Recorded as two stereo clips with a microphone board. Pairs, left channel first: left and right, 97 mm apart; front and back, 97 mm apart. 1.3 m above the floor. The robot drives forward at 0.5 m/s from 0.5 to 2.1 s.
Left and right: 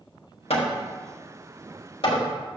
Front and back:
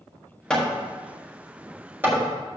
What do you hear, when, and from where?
0.5 s hammering: 80° left, 1.4 m; by 2.3 s 115° left, 1.5 m